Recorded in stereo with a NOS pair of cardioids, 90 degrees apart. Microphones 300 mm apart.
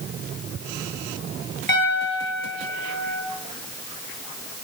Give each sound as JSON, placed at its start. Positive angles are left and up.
{"t": 1.7, "sound": "a piano", "azimuth_deg": 35, "distance_m": 2.0}